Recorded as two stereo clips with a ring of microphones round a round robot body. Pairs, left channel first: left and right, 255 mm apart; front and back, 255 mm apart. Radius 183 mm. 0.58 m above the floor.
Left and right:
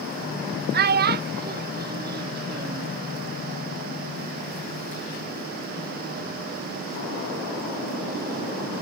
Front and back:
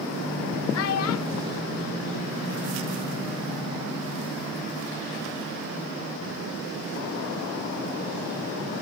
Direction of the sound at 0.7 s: 35° right.